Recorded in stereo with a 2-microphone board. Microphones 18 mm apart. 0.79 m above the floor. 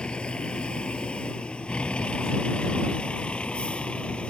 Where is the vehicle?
70° left (ahead or behind); by 4.3 s 85° left.